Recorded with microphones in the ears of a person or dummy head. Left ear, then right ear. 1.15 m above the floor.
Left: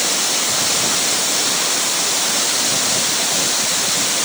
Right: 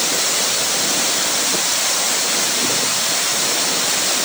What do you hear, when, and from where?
Only background noise.